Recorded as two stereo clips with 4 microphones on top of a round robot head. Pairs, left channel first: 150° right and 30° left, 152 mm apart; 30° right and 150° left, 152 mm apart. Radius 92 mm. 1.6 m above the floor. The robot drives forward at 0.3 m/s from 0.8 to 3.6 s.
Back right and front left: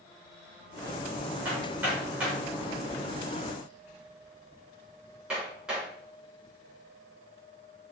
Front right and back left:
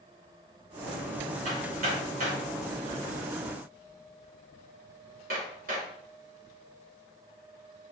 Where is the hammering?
110° left, 5.5 m; by 5.9 s 115° left, 5.5 m.